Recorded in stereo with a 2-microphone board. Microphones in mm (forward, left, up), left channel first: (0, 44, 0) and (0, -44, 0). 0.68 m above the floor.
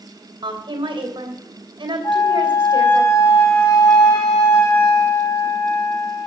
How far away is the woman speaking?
About 3 m.